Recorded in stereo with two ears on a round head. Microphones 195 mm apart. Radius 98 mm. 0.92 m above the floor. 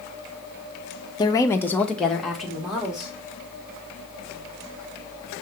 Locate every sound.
1.2 s a woman speaking: 20° left (ahead or behind), 0.7 m; by 3.1 s 5° right (ahead or behind), 2.5 m